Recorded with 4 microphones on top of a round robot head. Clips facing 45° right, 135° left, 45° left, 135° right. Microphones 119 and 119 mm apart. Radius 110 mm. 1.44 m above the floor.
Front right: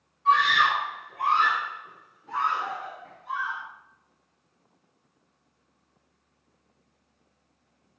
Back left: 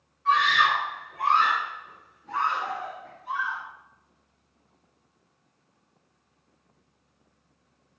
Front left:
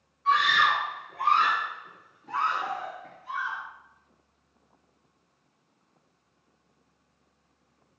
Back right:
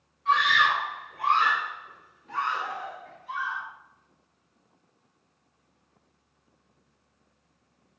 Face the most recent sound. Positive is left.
turn(degrees=55)